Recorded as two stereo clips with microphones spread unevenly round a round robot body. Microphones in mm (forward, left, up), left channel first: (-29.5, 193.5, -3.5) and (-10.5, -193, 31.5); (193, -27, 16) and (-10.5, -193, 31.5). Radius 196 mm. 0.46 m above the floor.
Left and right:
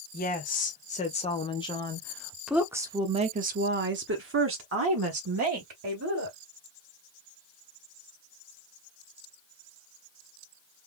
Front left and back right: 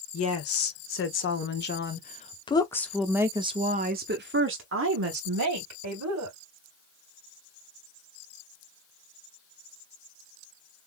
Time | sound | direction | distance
0.1 | a woman speaking | 30° left | 1.8 m